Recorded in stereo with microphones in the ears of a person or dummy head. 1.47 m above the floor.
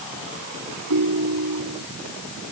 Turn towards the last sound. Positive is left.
turn(degrees=-85)